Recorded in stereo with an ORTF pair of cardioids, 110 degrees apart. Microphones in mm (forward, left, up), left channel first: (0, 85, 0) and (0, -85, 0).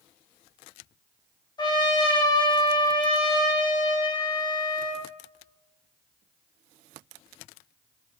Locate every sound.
1.6 s a trumpet: 25° left, 1.6 m